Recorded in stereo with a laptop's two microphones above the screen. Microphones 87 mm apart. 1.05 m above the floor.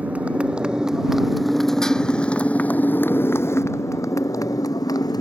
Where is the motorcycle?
15° right (ahead or behind); by 5.2 s 50° left (ahead or behind).